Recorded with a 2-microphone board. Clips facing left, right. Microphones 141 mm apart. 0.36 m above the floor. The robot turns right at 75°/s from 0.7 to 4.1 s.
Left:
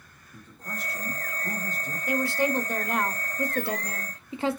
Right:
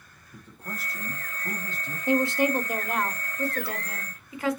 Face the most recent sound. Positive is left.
turn(degrees=25)  # may be behind; listen again after turning